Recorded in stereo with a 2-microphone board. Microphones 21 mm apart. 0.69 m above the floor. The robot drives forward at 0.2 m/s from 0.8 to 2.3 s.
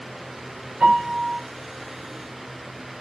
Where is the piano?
65° right (ahead or behind), 1.3 m.